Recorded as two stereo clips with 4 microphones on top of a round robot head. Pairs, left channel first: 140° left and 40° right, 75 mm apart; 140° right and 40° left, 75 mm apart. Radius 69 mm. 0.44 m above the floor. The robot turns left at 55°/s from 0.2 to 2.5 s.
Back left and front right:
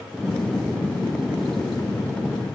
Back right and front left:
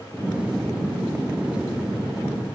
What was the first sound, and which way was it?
Only background noise.